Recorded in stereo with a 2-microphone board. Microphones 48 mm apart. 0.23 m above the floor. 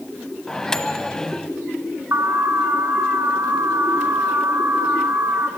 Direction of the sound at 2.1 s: 60° right (ahead or behind).